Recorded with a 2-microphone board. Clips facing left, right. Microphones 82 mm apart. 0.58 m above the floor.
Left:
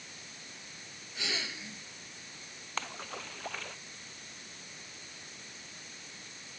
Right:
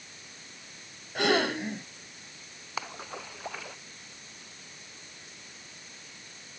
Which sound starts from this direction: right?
A gasp, at 1.1 s.